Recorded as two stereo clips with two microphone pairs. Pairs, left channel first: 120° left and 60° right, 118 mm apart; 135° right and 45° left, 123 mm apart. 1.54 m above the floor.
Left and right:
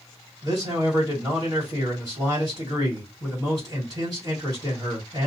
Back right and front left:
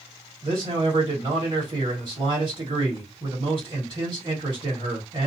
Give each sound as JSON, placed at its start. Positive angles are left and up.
{"t": 0.4, "sound": "a man speaking", "azimuth_deg": -5, "distance_m": 1.8}